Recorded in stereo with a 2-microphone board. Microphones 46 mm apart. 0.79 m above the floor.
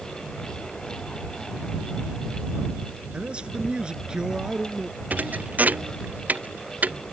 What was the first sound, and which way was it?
A man speaking, 25° right (ahead or behind).